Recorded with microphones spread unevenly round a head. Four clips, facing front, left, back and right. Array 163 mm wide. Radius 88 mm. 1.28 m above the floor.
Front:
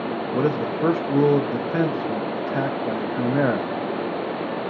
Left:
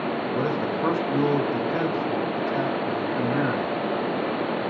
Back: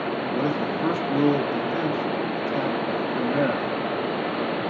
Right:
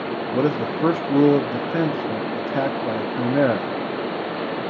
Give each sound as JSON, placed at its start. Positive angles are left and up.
{"t": 0.3, "sound": "a man speaking", "azimuth_deg": -55, "distance_m": 0.8}